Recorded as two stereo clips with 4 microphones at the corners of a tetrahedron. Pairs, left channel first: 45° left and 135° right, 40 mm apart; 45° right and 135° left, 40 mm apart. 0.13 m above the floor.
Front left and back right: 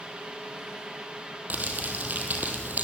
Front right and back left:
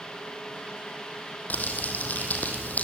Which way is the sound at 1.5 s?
90° right.